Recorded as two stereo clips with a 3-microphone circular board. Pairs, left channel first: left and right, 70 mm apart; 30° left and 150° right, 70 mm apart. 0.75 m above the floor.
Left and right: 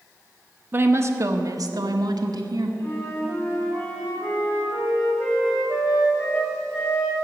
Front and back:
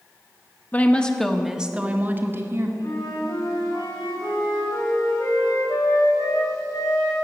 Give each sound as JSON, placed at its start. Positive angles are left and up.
{"t": 0.7, "sound": "a woman speaking", "azimuth_deg": -35, "distance_m": 1.1}
{"t": 2.8, "sound": "a flute", "azimuth_deg": 35, "distance_m": 4.0}